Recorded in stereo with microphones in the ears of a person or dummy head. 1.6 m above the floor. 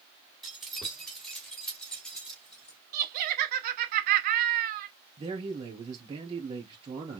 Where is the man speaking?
30° right (ahead or behind), 2.5 m.